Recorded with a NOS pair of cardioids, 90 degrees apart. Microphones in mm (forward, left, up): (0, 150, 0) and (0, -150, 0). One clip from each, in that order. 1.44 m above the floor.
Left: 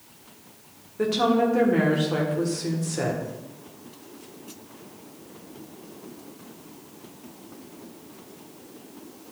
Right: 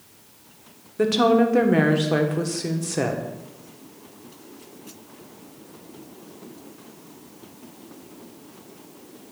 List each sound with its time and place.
1.0 s a woman speaking: 35° right, 1.4 m